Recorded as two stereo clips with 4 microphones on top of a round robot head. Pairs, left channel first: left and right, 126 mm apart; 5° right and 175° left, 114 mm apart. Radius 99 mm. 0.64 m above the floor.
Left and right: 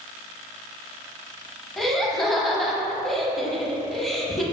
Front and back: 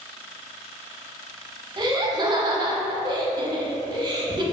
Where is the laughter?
175° left, 0.8 m.